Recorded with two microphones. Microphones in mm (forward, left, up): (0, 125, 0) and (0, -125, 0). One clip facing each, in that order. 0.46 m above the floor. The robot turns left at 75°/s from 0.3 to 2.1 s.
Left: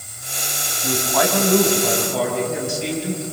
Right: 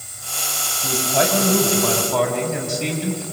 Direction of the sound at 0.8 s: Straight ahead.